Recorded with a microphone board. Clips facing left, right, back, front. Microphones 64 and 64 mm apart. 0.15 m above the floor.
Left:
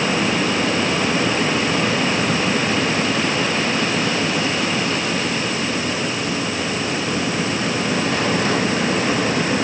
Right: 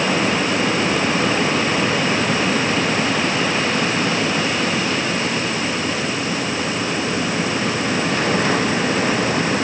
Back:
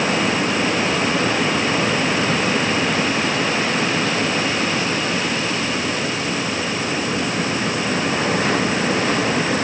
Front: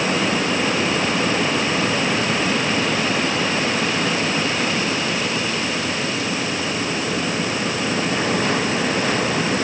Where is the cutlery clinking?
No cutlery clinking in this recording.